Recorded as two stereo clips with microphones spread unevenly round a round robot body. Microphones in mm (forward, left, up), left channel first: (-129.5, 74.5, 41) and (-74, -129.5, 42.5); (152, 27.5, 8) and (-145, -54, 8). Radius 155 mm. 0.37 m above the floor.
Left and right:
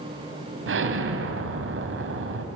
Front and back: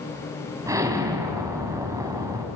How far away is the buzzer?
No buzzer in this recording.